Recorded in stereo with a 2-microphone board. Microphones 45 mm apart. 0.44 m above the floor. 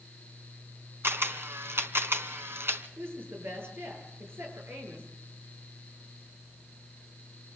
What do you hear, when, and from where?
1.0 s a camera shutter: 75° right (ahead or behind), 1.8 m
3.0 s a woman speaking: 65° right (ahead or behind), 9 m